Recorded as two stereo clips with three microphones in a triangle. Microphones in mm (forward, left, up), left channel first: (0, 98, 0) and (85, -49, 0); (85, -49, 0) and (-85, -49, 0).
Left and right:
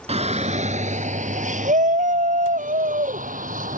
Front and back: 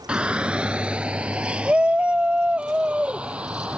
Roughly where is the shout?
Right.